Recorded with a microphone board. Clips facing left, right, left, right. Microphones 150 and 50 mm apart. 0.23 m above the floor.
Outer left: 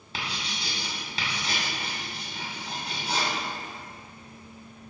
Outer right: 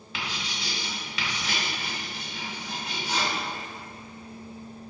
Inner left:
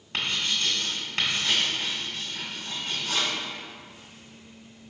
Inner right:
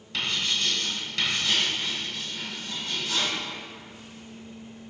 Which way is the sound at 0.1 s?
35° left (ahead or behind).